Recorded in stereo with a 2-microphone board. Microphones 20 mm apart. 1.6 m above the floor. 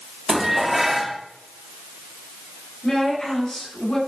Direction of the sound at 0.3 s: 10° right (ahead or behind).